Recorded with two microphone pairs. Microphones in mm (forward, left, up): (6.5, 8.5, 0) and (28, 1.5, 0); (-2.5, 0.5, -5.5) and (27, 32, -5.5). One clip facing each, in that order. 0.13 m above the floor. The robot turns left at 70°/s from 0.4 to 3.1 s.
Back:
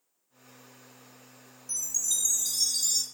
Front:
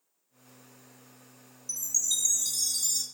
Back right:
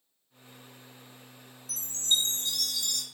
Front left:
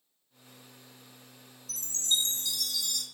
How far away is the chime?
About 1.0 m.